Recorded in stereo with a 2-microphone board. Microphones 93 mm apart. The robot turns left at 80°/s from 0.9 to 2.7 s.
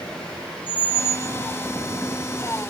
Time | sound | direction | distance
0.7 | a squeak | 75° left | 0.6 m